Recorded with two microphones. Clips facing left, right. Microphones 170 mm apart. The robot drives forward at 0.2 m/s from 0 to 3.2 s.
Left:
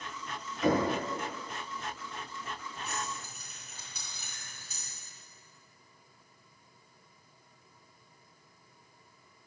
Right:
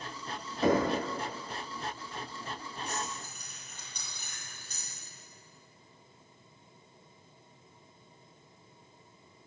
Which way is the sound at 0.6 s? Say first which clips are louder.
Right 1 dB; 35° right (ahead or behind).